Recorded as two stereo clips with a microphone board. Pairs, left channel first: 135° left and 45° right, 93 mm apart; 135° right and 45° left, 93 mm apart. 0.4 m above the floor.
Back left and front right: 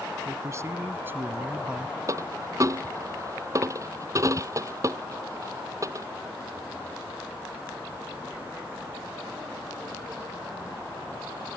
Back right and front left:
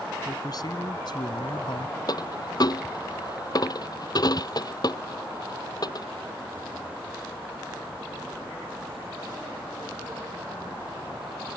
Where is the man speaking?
95° right; by 2.0 s 125° right.